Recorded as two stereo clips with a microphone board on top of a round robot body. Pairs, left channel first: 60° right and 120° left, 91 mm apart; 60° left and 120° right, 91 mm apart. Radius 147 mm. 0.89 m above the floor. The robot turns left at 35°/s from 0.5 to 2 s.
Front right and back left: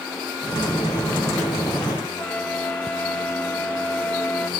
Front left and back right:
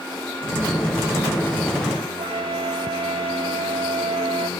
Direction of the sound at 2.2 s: 135° right.